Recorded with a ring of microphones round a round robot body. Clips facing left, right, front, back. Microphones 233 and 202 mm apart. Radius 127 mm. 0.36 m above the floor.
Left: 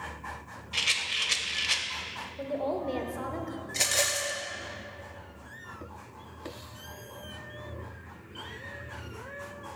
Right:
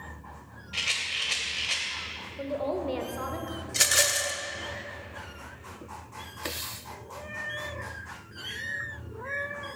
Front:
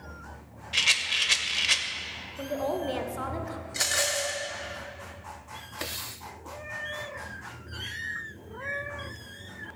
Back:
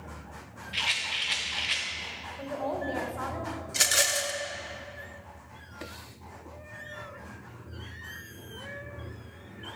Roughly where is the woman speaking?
Ahead.